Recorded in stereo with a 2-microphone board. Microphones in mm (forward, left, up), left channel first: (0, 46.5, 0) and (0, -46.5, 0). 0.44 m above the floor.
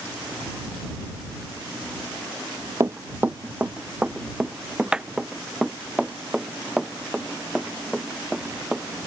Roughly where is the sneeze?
I don't hear a sneeze.